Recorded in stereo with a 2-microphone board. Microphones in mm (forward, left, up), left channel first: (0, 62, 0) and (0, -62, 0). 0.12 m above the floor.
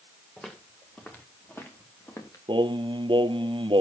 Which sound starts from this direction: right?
Singing, at 2.5 s.